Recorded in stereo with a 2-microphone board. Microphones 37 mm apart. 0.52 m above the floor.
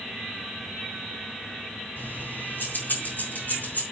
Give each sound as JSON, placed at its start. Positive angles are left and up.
{"t": 2.0, "sound": "keys jangling", "side_deg": 65, "distance_m": 3.0}